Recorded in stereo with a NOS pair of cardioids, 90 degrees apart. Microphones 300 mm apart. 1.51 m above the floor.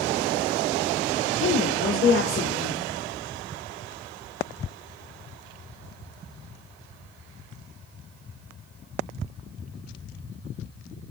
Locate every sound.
1.4 s a woman speaking: 45° left, 1.3 m